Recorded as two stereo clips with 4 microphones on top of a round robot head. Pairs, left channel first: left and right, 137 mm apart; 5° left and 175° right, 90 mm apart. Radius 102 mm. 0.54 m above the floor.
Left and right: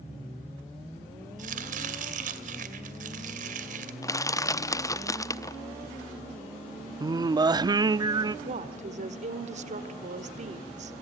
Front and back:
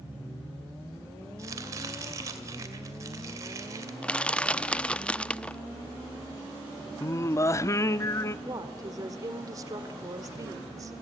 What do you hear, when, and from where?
1.4 s chopping: 115° right, 2.5 m
4.0 s crushing: 65° left, 0.9 m
7.0 s singing: 40° right, 0.8 m
8.4 s a woman speaking: 120° right, 1.7 m